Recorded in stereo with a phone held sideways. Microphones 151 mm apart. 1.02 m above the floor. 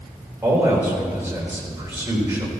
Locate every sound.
0.4 s a man speaking: 15° right (ahead or behind), 3.5 m